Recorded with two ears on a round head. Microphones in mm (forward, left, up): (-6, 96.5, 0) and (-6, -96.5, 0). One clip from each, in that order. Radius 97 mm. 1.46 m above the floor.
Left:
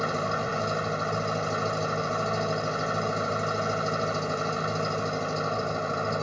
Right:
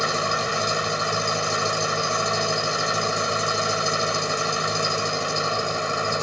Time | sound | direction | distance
0.0 | an engine running | 70° right (ahead or behind) | ?